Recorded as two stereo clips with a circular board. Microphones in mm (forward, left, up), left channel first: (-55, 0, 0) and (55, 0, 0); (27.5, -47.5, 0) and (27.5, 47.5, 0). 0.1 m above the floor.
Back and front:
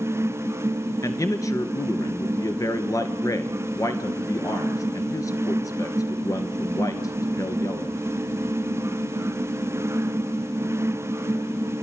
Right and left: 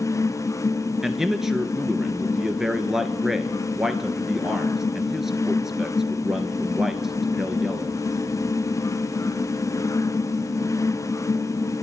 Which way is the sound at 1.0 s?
175° left.